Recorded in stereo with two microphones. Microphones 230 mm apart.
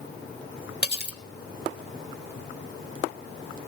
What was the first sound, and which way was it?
Cutlery clinking, 45° right (ahead or behind).